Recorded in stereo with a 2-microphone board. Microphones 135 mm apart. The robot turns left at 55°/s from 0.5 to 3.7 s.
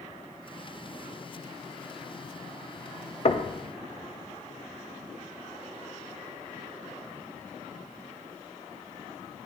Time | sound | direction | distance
3.2 | knocking | 50° left (ahead or behind) | 0.5 m